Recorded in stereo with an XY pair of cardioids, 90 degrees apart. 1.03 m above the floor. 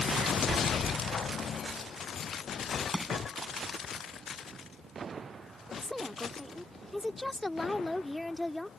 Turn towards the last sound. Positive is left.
turn(degrees=5)